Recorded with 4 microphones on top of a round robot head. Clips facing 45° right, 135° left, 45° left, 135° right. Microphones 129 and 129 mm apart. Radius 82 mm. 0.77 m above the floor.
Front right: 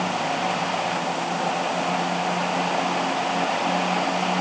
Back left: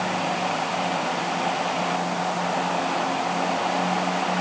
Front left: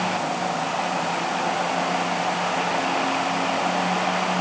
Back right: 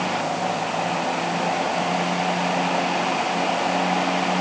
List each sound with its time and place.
Only background noise.